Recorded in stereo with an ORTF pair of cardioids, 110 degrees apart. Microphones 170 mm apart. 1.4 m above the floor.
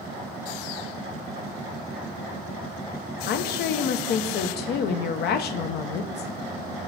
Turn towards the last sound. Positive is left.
turn(degrees=70)